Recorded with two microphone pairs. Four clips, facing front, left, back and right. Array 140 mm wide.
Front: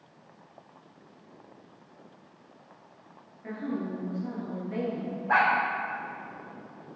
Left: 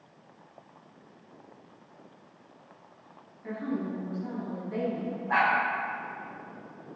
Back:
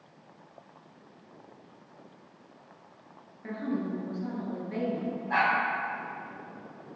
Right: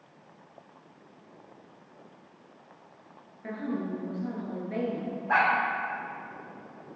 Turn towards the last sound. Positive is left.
turn(degrees=-25)